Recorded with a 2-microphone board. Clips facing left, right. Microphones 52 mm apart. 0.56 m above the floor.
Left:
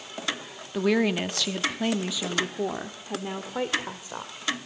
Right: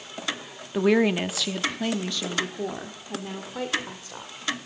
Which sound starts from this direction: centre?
A woman speaking, at 0.7 s.